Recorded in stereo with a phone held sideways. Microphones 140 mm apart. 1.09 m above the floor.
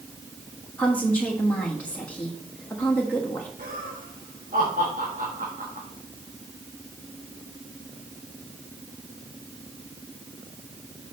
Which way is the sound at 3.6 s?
75° right (ahead or behind).